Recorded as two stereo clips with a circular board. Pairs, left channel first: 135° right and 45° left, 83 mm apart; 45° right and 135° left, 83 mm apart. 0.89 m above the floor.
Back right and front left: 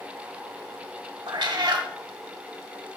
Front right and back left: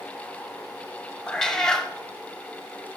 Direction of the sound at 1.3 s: 35° left.